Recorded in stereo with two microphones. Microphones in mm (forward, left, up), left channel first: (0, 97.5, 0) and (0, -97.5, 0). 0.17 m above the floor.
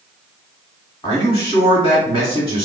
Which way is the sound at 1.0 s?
20° left (ahead or behind).